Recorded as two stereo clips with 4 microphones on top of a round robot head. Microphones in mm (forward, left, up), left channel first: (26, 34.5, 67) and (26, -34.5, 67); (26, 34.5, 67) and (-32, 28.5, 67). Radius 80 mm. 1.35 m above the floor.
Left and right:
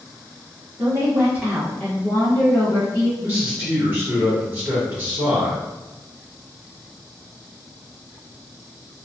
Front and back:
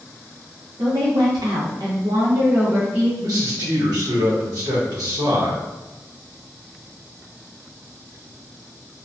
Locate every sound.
0.8 s a woman speaking: 145° right, 0.8 m; by 3.1 s 115° left, 0.8 m
3.2 s a man speaking: 155° right, 1.0 m